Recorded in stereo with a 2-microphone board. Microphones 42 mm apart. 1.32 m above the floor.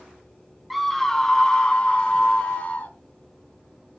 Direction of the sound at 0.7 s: Centre (ahead or behind).